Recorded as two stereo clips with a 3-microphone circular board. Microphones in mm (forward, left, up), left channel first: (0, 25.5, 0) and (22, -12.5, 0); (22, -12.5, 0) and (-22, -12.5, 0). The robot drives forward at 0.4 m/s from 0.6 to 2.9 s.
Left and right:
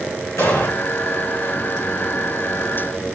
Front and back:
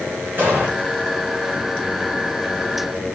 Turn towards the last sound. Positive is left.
turn(degrees=140)